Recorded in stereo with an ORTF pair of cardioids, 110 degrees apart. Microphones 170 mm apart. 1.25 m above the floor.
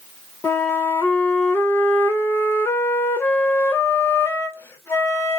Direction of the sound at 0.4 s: 15° left.